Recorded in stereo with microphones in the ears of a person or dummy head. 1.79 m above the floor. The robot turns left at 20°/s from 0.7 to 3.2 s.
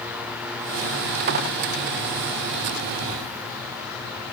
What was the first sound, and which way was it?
Only background noise.